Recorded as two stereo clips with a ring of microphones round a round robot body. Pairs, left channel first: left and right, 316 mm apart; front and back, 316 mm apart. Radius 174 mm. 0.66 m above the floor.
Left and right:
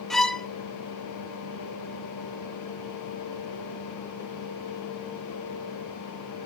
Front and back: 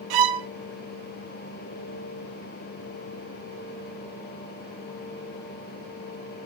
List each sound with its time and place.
0.1 s a violin: straight behind, 0.7 m